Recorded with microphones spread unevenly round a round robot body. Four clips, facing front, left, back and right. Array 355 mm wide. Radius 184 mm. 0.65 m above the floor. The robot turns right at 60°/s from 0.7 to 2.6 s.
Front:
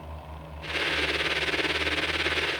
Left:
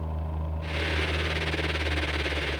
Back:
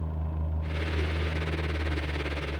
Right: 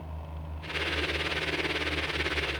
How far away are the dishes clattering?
I don't hear dishes clattering.